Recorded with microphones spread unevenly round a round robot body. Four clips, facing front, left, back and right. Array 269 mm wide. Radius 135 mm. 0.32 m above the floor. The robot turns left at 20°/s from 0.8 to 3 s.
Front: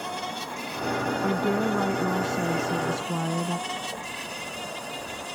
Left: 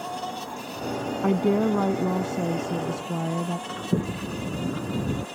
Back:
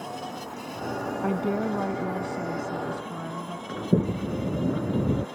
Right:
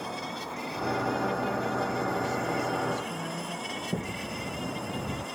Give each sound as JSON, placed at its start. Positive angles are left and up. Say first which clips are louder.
{"t": 0.0, "sound": "an insect", "louder": "left 4 dB, front 2 dB", "azimuth_deg": 70}
{"t": 1.2, "sound": "a woman speaking", "louder": "left 7 dB, even", "azimuth_deg": 90}
{"t": 3.7, "sound": "a sliding door", "louder": "left 6 dB, back 8 dB", "azimuth_deg": 150}